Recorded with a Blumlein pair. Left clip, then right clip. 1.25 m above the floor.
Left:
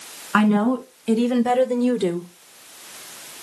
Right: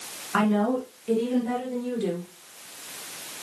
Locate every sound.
0.3 s a woman speaking: 70° left, 3 m; by 2.3 s 10° left, 0.9 m